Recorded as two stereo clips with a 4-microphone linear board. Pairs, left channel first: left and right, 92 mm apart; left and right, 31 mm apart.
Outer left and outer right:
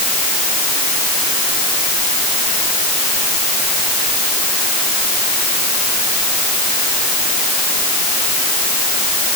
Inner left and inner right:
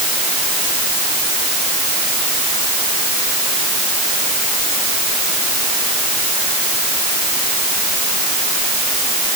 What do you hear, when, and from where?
Only background noise.